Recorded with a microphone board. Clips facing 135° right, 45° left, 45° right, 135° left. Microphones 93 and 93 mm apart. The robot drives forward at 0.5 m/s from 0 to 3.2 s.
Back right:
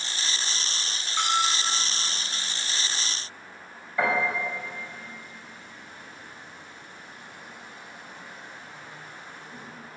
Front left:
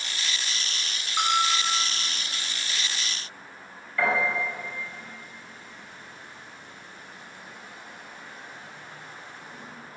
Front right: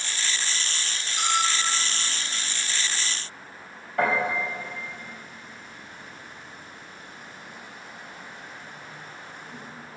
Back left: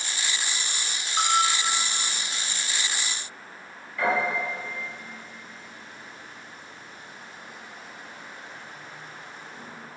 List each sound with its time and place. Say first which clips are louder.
1.2 s a bell: front left 2 dB, back left 3 dB; 120° left, 3 m; by 1.8 s 125° left, 3.5 m
4.0 s a piano: even, front right 1 dB; 65° right, 6 m